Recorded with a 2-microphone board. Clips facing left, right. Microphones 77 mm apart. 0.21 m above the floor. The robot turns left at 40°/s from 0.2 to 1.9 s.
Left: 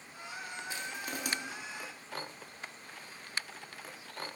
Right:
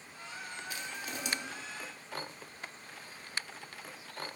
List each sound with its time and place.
0.7 s crushing: 35° left (ahead or behind), 1.2 m; by 1.3 s 55° left (ahead or behind), 1.2 m